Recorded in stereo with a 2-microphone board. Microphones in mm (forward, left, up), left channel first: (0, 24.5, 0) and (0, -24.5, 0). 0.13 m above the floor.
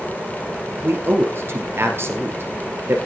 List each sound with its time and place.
0.8 s a man speaking: 50° right (ahead or behind), 2.5 m